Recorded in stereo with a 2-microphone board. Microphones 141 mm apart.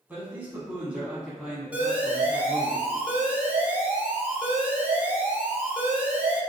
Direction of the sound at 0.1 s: 15° right (ahead or behind).